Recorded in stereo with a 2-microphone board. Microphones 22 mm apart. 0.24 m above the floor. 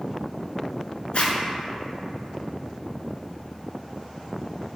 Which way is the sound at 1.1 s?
60° left (ahead or behind).